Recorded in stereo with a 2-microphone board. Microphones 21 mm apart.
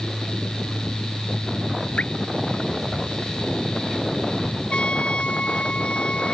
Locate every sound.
2.0 s dripping: 75° left (ahead or behind)
4.7 s a trumpet: 60° left (ahead or behind)